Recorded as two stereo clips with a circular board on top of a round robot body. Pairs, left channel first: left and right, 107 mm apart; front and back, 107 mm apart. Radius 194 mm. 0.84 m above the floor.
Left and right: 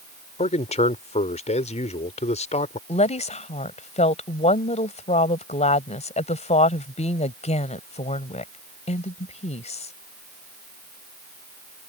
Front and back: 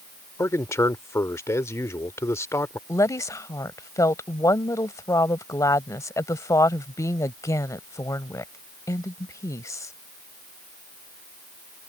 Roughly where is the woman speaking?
Ahead left.